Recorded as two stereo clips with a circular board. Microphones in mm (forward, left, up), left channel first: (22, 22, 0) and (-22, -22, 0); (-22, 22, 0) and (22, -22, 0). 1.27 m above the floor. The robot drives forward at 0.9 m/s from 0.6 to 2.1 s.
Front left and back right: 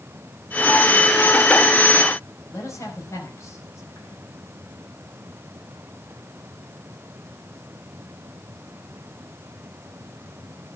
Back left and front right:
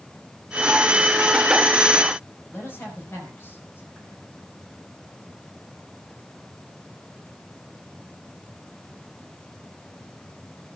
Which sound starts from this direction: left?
A man speaking, at 2.5 s.